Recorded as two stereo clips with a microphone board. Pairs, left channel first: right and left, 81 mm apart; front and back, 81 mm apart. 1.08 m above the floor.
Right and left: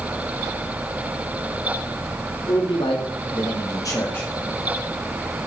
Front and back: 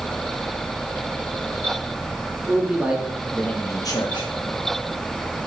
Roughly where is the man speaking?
Right.